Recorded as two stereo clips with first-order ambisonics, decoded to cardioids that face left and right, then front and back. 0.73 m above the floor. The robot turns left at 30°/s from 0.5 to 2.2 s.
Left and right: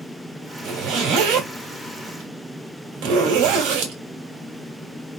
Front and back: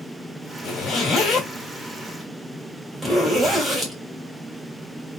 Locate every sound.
0.6 s a zipper: 45° right, 1.5 m; by 4.0 s 90° right, 1.5 m